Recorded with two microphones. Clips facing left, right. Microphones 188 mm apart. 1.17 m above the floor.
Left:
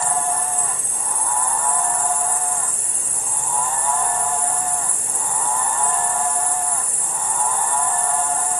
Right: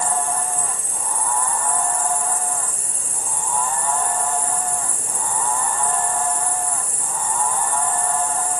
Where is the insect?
40° right (ahead or behind), 4.5 m.